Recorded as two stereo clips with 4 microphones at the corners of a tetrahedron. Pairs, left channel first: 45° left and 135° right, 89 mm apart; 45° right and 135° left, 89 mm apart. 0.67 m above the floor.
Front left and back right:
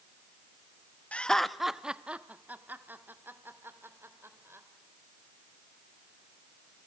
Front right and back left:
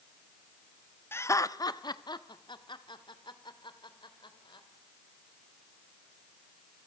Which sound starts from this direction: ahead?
Laughter, at 1.1 s.